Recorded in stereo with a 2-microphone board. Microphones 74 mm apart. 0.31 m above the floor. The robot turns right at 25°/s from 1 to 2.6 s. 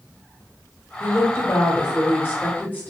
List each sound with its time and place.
1.0 s a woman speaking: 100° left, 1.2 m; by 2.9 s 140° left, 1.2 m